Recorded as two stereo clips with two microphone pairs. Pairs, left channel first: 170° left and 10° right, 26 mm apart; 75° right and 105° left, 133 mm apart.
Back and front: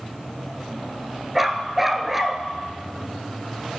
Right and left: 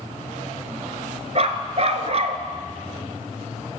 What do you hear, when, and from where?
1.4 s a dog barking: 70° left, 0.8 m